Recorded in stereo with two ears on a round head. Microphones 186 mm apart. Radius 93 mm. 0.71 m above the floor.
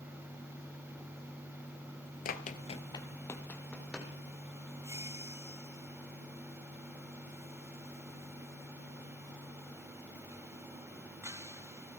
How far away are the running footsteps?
About 0.8 m.